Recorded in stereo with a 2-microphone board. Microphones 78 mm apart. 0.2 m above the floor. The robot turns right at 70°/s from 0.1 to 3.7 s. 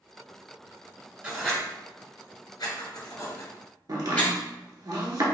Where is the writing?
15° right (ahead or behind), 1.2 m; by 4.3 s 20° left (ahead or behind), 1.2 m.